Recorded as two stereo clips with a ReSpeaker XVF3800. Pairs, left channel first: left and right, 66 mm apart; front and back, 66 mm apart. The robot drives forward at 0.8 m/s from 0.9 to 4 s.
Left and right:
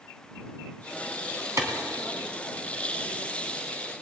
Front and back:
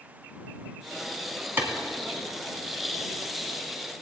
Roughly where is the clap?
Behind right.